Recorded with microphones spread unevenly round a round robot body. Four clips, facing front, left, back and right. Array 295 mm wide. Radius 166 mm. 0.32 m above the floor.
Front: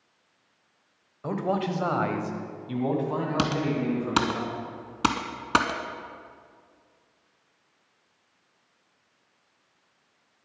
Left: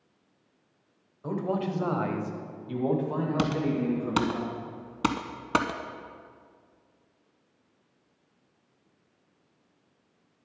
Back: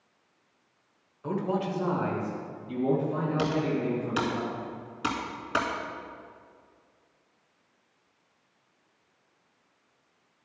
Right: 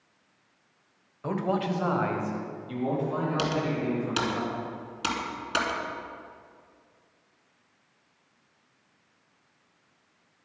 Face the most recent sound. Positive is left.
turn(degrees=25)